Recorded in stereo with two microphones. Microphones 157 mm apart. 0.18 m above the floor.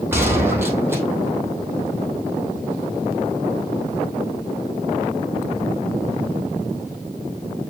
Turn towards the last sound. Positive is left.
turn(degrees=-15)  # may be behind; listen again after turning